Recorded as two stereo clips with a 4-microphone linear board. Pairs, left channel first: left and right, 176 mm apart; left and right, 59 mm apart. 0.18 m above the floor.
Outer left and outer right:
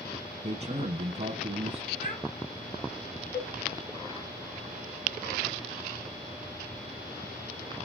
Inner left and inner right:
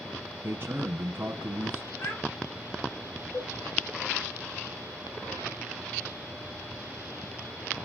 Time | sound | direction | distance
0.4 | a man speaking | 40° right (ahead or behind) | 1.3 m
2.0 | a child speaking | 45° left (ahead or behind) | 5.5 m
3.3 | dishes clattering | 30° left (ahead or behind) | 4 m